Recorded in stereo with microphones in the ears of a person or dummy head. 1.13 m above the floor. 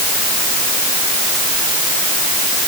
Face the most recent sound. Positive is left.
No sound to turn to.